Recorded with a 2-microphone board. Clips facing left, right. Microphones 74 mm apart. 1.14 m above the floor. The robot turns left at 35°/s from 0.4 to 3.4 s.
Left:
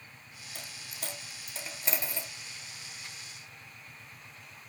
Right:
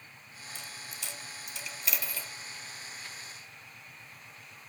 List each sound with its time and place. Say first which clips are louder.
0.6 s a dropped coin: left 1 dB; 55° left (ahead or behind), 1.7 m; by 2.3 s 20° left (ahead or behind), 1.7 m